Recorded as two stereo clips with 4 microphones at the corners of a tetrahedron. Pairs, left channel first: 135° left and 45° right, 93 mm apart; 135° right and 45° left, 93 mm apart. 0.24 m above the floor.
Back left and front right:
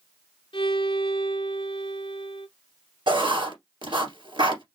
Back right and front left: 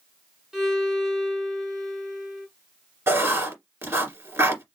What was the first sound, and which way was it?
A violin, 130° left.